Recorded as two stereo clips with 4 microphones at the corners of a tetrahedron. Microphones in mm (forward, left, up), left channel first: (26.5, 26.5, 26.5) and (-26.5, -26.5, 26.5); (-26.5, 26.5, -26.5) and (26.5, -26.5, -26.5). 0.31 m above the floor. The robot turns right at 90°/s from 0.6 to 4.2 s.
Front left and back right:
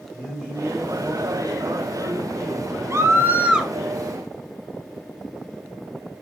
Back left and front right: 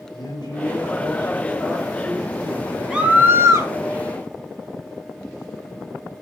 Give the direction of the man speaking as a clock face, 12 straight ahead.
8 o'clock.